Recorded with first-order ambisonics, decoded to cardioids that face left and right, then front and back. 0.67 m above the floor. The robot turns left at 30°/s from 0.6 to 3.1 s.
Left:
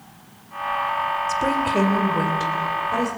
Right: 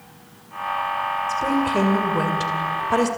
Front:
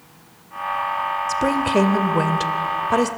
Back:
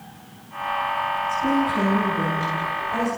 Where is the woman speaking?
15° left, 2 m; by 3.1 s 35° right, 2 m.